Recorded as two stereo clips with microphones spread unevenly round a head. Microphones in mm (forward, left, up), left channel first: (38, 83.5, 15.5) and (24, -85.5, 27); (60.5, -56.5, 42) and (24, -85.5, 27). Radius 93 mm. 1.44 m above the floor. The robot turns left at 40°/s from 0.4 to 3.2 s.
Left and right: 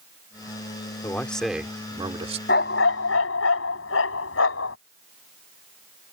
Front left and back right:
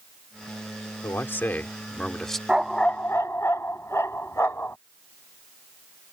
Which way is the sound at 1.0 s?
10° left.